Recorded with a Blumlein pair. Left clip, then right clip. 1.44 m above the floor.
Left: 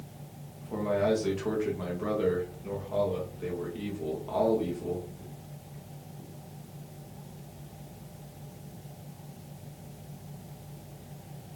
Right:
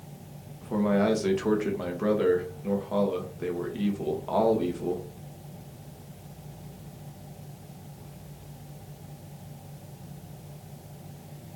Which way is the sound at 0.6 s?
20° right.